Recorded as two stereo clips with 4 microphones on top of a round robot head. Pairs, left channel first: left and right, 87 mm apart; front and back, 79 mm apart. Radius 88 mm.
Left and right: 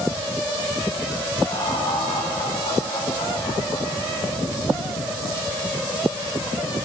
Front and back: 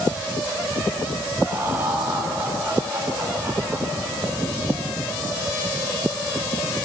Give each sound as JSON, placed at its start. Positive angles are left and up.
{"t": 1.5, "sound": "laughter", "azimuth_deg": 110, "distance_m": 8.5}